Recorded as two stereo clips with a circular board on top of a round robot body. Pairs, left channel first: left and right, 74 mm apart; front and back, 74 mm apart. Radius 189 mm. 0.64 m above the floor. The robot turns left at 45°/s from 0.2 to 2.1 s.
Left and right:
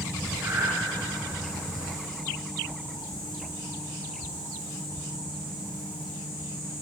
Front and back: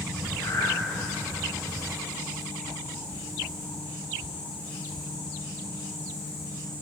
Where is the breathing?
30° right, 1.5 m; by 0.7 s 45° right, 1.5 m.